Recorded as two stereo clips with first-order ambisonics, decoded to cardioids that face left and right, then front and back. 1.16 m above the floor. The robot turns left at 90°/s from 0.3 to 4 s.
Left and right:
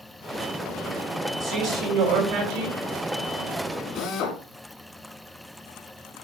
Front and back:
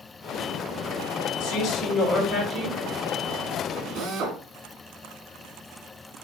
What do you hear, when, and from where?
1.4 s a man speaking: 20° right, 8 m; by 2.8 s 145° right, 8 m
4.0 s a drill: 140° left, 4 m; by 4.4 s 135° left, 4 m